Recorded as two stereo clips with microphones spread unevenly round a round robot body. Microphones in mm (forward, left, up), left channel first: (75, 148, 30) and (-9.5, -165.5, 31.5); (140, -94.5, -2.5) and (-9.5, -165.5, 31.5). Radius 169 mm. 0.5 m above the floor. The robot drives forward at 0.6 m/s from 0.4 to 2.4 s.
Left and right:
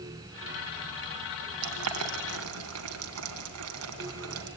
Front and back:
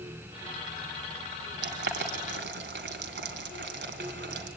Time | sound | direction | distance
1.6 | boiling | 150° right | 2 m